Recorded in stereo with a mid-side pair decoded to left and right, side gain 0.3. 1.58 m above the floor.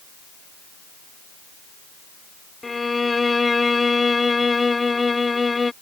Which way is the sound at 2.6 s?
35° left.